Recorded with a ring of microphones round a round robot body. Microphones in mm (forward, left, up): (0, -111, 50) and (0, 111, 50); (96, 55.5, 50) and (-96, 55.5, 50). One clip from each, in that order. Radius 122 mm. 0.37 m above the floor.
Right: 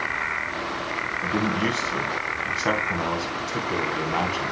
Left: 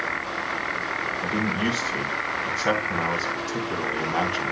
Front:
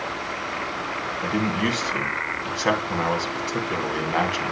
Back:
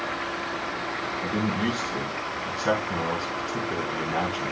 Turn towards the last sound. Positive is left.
turn(degrees=0)